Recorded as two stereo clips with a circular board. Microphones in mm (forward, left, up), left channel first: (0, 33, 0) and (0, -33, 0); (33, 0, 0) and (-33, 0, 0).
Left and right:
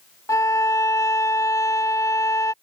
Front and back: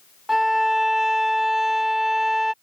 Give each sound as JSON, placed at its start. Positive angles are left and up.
{"t": 0.3, "sound": "a violin", "azimuth_deg": 95}